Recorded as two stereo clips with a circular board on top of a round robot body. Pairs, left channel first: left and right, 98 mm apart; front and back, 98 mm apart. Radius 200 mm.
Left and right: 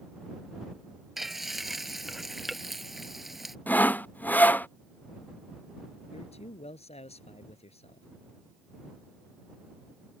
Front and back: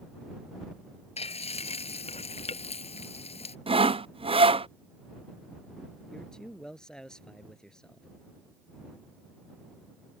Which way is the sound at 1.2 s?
Straight ahead.